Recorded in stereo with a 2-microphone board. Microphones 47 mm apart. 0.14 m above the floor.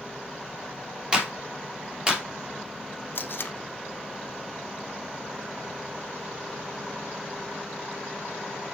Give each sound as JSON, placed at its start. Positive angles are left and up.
{"t": 1.1, "sound": "a clap", "side_deg": -20, "distance_m": 3.0}
{"t": 3.1, "sound": "tape being pulled", "side_deg": 45, "distance_m": 0.8}